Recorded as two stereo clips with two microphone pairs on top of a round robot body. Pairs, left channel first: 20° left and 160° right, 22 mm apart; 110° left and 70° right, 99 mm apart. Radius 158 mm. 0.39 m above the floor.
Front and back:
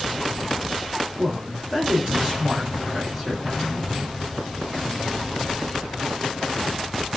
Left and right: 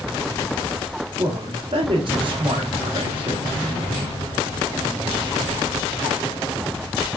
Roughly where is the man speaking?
Right.